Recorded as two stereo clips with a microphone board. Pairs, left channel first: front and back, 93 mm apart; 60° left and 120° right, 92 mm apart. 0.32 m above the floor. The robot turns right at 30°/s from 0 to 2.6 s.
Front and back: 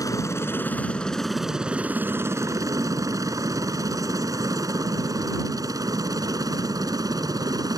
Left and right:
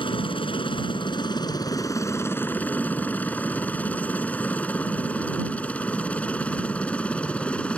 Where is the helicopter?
50° left; by 7.8 s 135° left.